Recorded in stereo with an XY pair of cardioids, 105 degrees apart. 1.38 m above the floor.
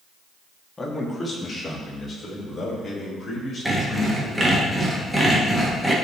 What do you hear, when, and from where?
0.8 s a man speaking: 20° left, 2.0 m; by 4.4 s 35° left, 6 m
3.6 s sawing: 5° right, 2 m